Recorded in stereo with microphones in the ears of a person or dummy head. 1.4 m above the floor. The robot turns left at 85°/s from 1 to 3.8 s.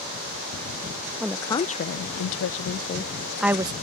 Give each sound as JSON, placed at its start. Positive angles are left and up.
{"t": 1.2, "sound": "a woman speaking", "azimuth_deg": -175}